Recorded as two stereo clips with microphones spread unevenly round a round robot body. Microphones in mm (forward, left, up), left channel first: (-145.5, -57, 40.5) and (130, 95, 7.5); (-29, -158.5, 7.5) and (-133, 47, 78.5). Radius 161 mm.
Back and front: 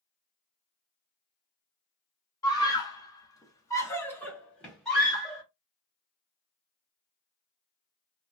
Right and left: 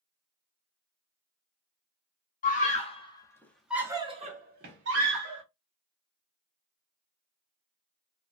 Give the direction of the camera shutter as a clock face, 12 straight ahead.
No camera shutter in this recording.